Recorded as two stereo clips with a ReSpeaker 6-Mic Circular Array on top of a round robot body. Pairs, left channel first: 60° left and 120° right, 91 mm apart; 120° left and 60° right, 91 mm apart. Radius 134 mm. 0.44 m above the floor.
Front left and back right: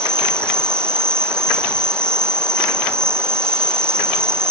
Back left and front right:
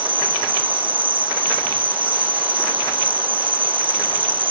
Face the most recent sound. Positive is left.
turn(degrees=-60)